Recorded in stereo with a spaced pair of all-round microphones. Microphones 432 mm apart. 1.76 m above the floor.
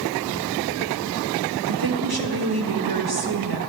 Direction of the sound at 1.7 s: 55° right (ahead or behind).